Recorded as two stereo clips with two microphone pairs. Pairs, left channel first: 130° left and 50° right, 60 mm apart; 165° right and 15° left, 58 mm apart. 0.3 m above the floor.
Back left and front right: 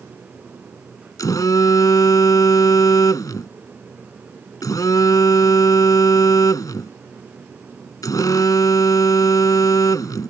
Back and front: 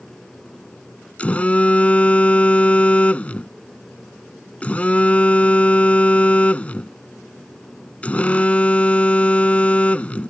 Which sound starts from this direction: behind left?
A phone buzzing, at 1.2 s.